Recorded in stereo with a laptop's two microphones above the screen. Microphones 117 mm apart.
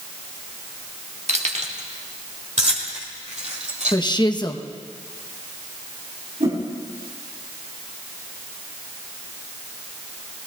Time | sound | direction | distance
1.3 | keys jangling | 70° right (ahead or behind) | 1.3 m
3.9 | a woman speaking | 40° left (ahead or behind) | 0.8 m
6.4 | a whoosh | 85° right | 7.5 m